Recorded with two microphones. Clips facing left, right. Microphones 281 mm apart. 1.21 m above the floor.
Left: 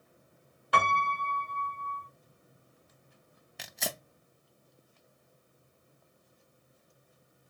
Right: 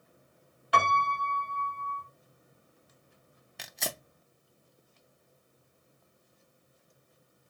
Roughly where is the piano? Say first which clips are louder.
Right 1 dB; left.